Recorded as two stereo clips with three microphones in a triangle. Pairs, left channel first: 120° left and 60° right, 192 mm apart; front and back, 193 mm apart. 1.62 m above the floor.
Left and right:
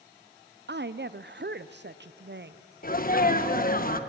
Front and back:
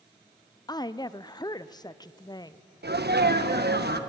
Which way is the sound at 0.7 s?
70° right.